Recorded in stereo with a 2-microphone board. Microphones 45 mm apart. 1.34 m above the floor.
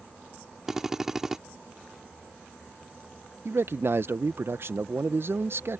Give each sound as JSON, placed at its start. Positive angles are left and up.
{"t": 0.7, "sound": "a drill", "side_deg": -10}
{"t": 3.5, "sound": "a man speaking", "side_deg": -60}